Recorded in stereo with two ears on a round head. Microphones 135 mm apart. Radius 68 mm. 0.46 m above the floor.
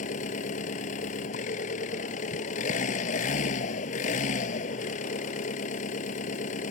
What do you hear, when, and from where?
0.0 s an engine running: 55° left (ahead or behind)